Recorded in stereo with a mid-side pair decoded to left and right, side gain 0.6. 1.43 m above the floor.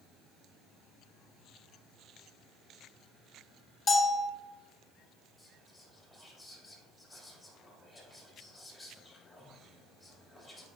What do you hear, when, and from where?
3.9 s a bell: 20° left, 1.6 m
5.4 s whispering: 5° left, 3.5 m